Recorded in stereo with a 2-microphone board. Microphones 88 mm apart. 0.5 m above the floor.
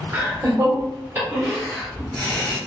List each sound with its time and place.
0.1 s laughter: 40° right (ahead or behind), 1.6 m; by 2.6 s 20° left (ahead or behind), 1.3 m